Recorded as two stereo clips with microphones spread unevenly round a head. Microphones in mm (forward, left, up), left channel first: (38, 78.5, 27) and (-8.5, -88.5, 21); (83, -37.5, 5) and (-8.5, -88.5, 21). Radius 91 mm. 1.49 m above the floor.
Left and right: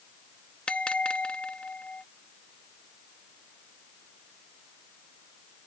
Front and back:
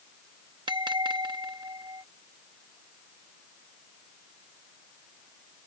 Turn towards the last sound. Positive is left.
turn(degrees=155)